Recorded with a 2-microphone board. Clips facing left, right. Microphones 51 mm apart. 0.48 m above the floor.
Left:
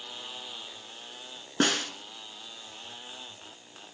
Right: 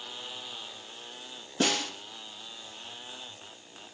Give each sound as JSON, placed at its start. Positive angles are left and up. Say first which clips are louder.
{"t": 1.6, "sound": "a snare drum", "louder": "left 2 dB", "side_deg": 55, "distance_m": 2.0}